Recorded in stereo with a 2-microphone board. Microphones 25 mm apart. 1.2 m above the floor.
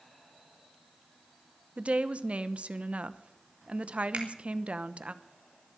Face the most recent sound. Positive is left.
turn(degrees=-70)  # may be behind; listen again after turning